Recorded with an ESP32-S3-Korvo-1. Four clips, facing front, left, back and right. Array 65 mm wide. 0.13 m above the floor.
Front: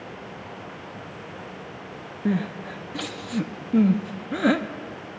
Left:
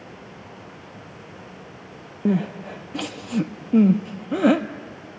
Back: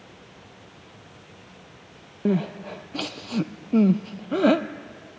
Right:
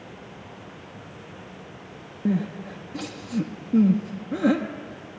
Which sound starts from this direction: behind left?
Crying, at 2.2 s.